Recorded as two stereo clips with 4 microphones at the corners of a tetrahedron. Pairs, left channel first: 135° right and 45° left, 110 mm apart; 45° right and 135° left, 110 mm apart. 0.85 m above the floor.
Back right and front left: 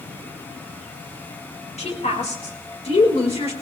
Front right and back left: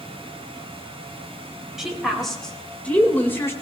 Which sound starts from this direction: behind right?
A woman speaking, at 1.8 s.